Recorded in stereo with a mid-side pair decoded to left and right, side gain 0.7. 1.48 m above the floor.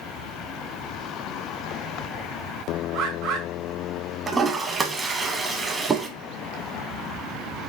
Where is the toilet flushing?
20° right, 0.9 m.